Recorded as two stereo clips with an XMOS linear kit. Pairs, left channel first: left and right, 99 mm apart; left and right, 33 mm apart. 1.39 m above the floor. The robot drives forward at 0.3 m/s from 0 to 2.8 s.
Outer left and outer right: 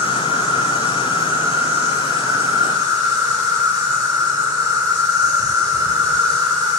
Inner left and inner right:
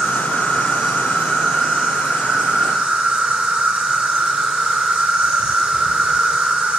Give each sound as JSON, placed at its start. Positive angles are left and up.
{"t": 0.0, "sound": "an insect", "side_deg": -20, "distance_m": 1.8}